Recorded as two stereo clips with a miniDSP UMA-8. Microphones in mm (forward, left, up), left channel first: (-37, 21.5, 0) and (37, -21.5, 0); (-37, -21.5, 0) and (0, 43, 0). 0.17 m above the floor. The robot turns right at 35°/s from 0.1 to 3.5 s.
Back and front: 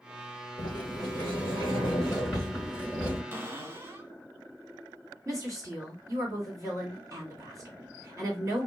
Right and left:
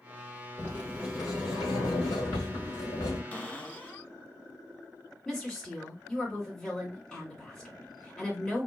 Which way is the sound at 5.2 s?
40° right.